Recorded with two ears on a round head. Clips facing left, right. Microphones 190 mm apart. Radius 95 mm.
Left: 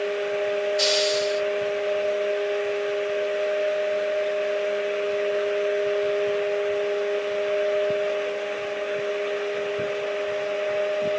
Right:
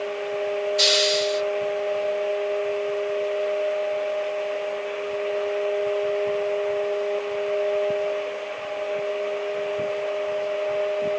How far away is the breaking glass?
I don't hear breaking glass.